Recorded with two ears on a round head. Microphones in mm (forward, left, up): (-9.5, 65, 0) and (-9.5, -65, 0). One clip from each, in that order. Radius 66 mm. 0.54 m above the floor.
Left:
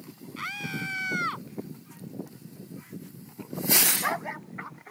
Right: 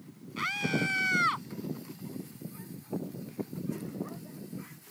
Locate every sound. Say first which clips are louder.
0.4 s a scream: right 3 dB; 10° right (ahead or behind); by 1.5 s 15° right (ahead or behind)